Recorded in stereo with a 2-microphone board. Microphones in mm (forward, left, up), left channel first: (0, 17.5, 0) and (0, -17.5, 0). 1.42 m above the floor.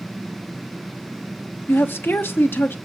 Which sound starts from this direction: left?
A woman speaking, at 1.7 s.